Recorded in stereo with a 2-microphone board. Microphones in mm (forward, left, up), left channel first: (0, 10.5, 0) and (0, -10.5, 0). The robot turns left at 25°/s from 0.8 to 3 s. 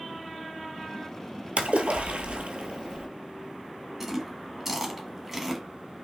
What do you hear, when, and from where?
1.6 s a splash: 90° right, 0.9 m; by 3.1 s 130° right, 0.9 m
4.0 s chewing: 15° right (ahead or behind), 1.3 m